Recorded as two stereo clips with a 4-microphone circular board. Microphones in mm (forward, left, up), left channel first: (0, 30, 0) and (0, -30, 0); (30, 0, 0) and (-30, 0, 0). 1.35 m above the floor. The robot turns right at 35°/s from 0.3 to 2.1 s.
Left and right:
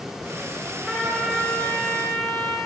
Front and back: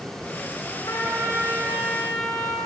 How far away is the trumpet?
About 1.0 m.